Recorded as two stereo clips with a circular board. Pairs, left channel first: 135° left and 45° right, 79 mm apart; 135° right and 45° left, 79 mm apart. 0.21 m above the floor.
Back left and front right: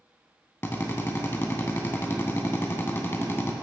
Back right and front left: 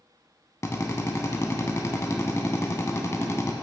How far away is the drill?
About 0.7 m.